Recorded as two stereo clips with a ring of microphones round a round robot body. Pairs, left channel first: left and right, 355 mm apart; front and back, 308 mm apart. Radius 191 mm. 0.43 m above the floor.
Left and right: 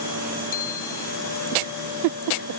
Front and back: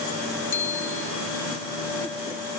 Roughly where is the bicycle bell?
Ahead left.